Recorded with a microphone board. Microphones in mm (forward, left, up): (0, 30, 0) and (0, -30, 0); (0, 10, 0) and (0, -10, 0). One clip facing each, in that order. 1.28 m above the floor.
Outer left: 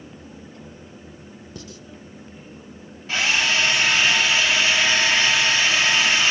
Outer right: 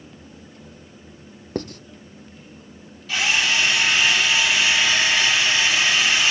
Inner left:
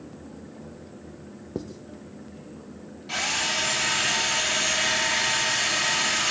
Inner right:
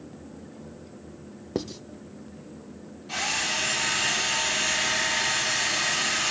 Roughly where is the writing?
Right.